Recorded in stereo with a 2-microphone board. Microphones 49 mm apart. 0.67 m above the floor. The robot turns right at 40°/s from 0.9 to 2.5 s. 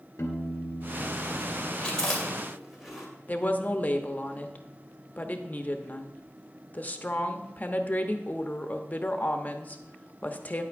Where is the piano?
75° left, 1.6 m; by 1.7 s 110° left, 1.6 m.